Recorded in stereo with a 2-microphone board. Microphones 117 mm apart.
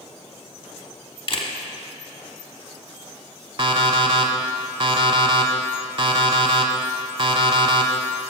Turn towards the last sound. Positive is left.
turn(degrees=-45)  # may be behind; listen again after turning